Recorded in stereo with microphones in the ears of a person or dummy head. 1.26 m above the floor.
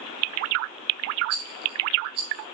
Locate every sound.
1.3 s a rattle: 30° right (ahead or behind), 1.6 m